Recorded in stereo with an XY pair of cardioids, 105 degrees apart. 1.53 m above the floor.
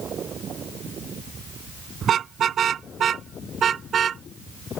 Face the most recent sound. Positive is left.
turn(degrees=-50)